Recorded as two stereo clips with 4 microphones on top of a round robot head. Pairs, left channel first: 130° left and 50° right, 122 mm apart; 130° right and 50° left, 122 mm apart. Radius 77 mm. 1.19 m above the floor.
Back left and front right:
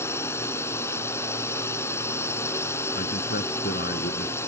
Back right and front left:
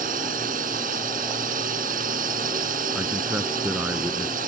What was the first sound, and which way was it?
A drone, 60° left.